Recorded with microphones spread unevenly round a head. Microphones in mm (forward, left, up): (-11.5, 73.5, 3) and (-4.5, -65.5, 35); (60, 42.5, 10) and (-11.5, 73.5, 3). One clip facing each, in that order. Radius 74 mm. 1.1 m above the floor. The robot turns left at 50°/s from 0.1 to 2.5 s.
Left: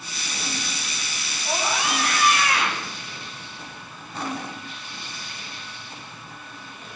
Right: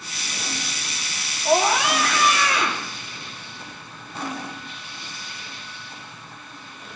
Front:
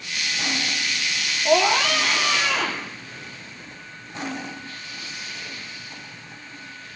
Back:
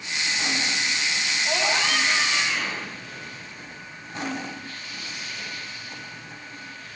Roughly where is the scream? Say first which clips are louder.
Right 7 dB, front 8 dB; ahead right.